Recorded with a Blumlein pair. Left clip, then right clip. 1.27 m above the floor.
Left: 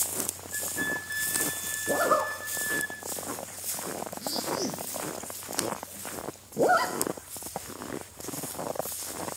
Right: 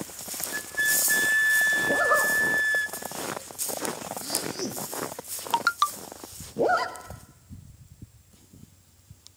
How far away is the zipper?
About 0.6 m.